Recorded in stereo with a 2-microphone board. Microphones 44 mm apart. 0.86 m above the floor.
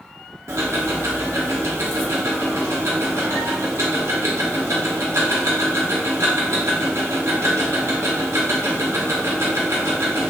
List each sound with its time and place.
0.5 s ticking: 75° right (ahead or behind), 0.8 m